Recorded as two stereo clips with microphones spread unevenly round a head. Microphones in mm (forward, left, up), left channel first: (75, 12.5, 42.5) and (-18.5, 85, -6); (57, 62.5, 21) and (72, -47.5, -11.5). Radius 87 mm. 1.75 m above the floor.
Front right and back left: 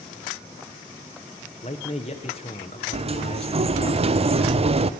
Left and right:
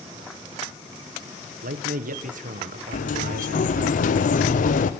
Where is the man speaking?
95° right, 1.5 m.